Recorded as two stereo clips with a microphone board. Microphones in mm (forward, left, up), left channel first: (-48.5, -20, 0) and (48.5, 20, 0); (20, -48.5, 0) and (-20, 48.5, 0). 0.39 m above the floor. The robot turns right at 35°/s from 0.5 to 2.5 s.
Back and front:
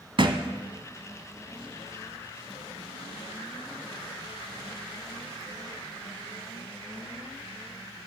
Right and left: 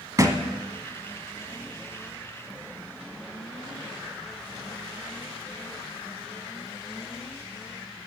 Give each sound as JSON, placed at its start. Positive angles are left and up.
{"t": 0.2, "sound": "a thud", "azimuth_deg": 55, "distance_m": 1.1}